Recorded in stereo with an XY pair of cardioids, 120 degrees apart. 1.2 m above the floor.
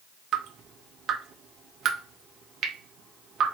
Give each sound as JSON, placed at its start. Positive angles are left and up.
{"t": 0.3, "sound": "dripping", "azimuth_deg": -60, "distance_m": 1.3}